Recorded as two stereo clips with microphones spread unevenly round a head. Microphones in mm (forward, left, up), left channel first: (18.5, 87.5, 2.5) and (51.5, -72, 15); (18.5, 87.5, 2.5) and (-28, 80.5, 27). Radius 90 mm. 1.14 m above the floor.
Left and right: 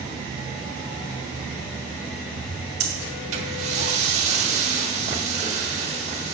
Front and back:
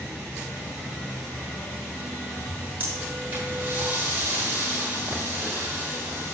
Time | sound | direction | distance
2.8 | breathing | 130° right | 1.4 m